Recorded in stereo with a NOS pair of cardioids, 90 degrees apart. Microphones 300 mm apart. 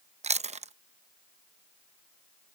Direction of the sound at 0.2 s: 20° right.